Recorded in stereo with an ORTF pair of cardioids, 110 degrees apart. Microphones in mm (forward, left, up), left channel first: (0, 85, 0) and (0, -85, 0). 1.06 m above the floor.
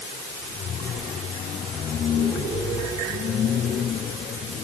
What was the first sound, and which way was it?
Only background noise.